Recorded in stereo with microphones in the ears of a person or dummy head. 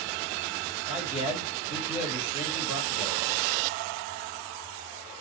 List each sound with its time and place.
0.9 s a man speaking: 30° left (ahead or behind), 3 m